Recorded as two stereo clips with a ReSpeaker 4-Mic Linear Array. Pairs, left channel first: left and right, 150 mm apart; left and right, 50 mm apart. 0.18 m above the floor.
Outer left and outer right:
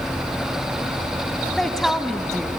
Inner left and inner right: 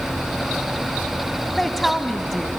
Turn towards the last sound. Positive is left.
turn(degrees=0)  # may be behind; listen again after turning